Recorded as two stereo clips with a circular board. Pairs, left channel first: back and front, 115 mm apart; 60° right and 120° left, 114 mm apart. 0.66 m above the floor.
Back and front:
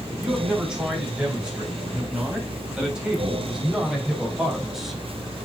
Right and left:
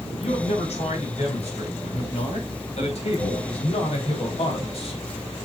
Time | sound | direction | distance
0.2 | a man speaking | 80° right | 5 m